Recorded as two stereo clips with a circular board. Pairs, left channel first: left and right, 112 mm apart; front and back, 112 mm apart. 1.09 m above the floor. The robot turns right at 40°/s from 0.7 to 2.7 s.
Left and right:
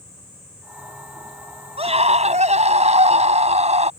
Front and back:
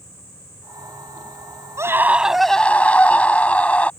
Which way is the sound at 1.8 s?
115° right.